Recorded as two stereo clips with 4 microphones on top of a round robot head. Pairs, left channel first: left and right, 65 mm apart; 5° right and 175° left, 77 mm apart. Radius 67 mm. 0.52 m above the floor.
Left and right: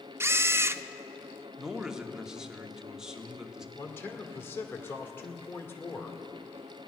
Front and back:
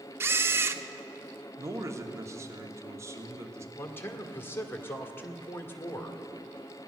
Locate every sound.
0.2 s a camera shutter: 130° right, 0.5 m
1.6 s a man speaking: 165° right, 1.5 m
3.8 s a man speaking: 45° left, 1.7 m